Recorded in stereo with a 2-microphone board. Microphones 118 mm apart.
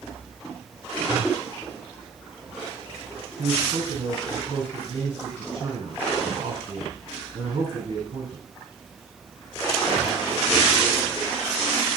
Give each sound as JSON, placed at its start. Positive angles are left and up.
{"t": 3.4, "sound": "a man speaking", "side_deg": -45, "distance_m": 4.0}